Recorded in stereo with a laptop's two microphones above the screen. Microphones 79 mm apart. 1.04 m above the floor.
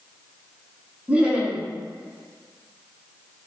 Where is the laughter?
15° right (ahead or behind), 0.6 m.